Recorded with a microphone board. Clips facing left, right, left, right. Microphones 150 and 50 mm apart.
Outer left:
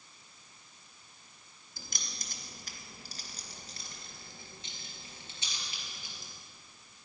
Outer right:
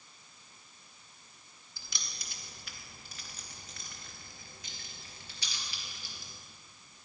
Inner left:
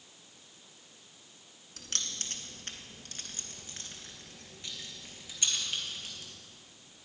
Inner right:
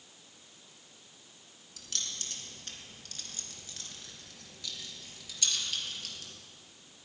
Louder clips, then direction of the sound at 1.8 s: Outer left 3 dB, inner left 2 dB; 50° left (ahead or behind).